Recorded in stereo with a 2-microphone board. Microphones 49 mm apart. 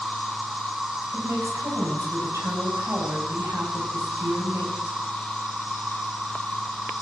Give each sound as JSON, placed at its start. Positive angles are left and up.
{"t": 0.0, "sound": "an insect", "side_deg": -10, "distance_m": 1.0}
{"t": 1.1, "sound": "a woman speaking", "side_deg": -65, "distance_m": 6.0}